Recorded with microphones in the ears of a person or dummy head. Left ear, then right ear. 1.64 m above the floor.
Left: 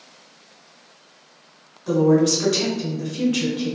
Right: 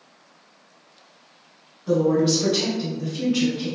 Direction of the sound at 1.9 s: 75° left (ahead or behind).